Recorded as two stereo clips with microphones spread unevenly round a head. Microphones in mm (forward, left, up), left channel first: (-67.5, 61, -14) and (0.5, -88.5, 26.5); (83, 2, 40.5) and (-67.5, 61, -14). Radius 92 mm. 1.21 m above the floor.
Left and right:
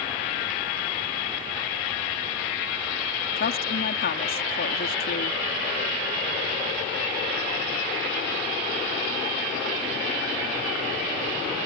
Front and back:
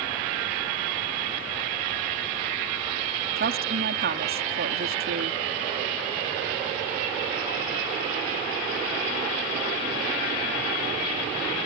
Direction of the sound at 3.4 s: 140° left.